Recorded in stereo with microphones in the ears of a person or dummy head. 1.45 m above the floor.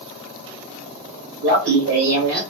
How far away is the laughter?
About 1.0 m.